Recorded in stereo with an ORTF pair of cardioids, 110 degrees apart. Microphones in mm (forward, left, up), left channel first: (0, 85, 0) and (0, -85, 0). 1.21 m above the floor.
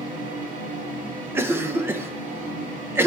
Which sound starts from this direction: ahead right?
A fan, at 0.0 s.